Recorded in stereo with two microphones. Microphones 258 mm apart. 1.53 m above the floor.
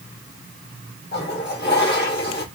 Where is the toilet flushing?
40° left (ahead or behind), 2.5 m.